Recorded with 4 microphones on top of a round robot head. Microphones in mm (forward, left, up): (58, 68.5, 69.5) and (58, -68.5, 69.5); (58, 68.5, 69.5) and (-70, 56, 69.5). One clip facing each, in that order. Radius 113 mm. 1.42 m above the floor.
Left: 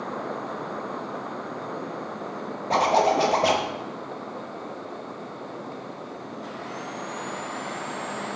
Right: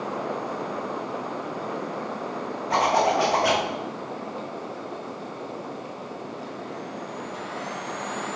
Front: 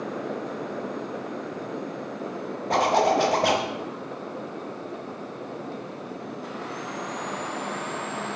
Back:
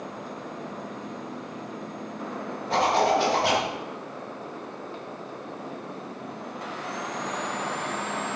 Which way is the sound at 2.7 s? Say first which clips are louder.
Left 1 dB, front 1 dB; 35° left.